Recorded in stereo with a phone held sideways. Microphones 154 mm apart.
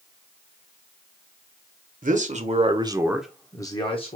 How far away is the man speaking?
About 1.1 m.